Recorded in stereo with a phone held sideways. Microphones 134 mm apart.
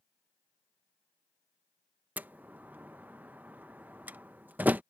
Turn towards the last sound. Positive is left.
turn(degrees=-15)  # may be behind; listen again after turning